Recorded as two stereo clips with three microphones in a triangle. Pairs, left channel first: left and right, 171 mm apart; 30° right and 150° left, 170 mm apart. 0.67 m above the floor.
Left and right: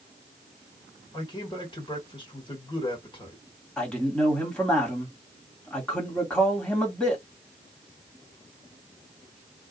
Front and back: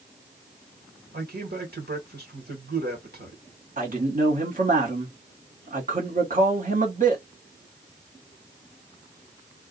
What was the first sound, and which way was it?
A man speaking, 150° left.